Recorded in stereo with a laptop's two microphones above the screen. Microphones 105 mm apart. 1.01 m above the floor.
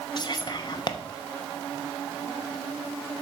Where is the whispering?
45° left (ahead or behind), 0.6 m.